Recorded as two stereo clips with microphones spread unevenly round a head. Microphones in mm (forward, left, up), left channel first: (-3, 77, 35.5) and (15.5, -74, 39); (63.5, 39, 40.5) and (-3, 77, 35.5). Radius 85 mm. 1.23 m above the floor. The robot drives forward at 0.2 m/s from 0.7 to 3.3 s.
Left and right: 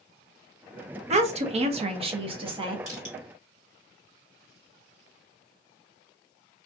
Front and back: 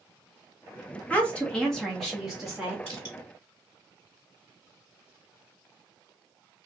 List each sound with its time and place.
1.1 s a woman speaking: 100° right, 0.7 m; by 2.8 s 135° right, 0.8 m
2.9 s crushing: 135° right, 1.6 m